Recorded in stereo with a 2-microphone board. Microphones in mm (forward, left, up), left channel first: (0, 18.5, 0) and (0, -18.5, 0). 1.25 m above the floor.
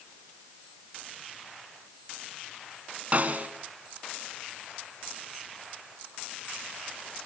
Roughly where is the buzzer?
I don't hear a buzzer.